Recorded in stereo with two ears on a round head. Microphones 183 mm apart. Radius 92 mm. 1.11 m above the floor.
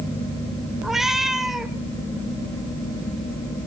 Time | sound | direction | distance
0.8 | a cat meowing | centre (ahead or behind) | 1.7 m